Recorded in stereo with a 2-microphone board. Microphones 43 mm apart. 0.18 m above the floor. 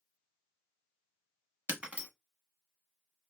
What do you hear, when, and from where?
1.7 s breaking glass: 30° right (ahead or behind), 0.8 m